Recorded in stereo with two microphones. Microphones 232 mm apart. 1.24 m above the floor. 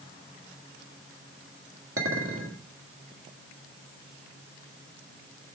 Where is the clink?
65° right (ahead or behind), 1.6 m.